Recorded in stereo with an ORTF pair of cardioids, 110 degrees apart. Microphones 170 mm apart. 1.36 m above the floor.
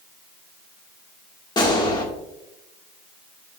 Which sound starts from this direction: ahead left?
A gunshot, at 1.6 s.